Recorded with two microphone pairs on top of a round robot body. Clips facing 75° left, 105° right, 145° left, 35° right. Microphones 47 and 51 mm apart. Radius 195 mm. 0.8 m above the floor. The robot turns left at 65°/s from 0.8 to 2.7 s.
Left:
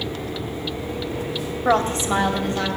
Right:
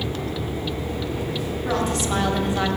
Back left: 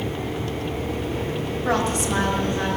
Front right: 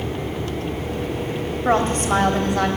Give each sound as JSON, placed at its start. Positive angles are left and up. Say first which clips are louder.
{"t": 1.6, "sound": "a woman speaking", "louder": "left 5 dB, front right 4 dB", "azimuth_deg": 30, "distance_m": 2.0}